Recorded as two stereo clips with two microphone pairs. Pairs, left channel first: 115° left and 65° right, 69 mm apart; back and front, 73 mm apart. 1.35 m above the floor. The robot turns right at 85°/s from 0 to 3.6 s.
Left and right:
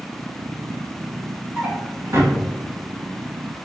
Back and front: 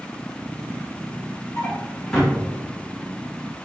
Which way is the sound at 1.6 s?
140° right.